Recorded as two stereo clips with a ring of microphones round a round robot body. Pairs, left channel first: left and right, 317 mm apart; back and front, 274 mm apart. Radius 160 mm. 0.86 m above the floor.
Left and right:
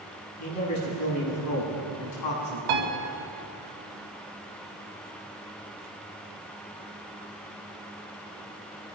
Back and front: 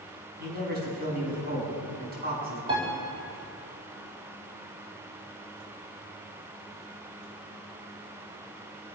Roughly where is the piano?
Right.